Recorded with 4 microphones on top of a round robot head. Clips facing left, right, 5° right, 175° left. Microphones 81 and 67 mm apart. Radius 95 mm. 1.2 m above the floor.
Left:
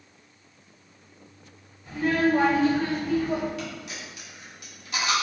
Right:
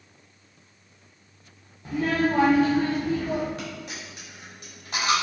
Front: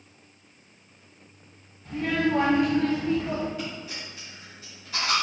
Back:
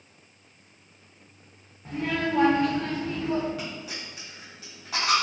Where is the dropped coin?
145° right, 1.3 m.